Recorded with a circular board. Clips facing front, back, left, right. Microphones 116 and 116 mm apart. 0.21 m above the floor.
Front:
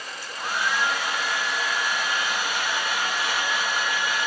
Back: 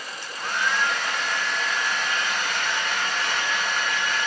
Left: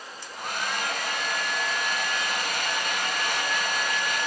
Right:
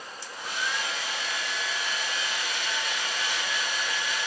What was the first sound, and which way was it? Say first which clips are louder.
A hair dryer: even, left 2 dB; 75° left.